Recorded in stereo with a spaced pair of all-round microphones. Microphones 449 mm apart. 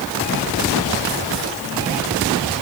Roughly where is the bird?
No bird in this recording.